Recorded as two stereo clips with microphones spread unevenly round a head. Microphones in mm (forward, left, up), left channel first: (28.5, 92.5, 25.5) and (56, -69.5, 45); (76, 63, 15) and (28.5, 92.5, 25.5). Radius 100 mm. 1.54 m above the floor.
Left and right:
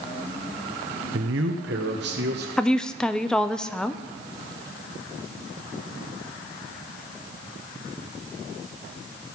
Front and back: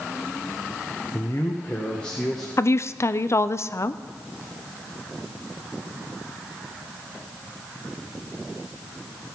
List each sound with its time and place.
1.1 s a man speaking: 100° right, 0.7 m; by 2.5 s 120° right, 1.5 m
2.6 s a woman speaking: 10° left, 0.5 m